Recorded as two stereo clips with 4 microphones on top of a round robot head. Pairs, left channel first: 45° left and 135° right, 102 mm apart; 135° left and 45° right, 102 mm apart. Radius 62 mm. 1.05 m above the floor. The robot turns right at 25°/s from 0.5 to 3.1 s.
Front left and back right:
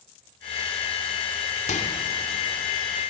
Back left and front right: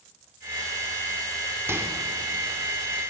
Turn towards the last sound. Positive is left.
turn(degrees=60)